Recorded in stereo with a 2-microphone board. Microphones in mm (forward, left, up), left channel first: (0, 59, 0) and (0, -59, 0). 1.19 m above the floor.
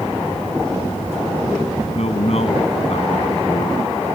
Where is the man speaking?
60° left (ahead or behind).